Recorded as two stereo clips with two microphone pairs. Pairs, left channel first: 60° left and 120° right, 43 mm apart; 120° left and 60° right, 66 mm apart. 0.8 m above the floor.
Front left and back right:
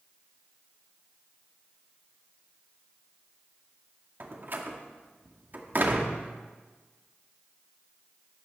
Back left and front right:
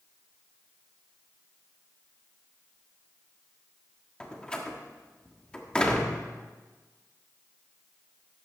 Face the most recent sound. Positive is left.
turn(degrees=-160)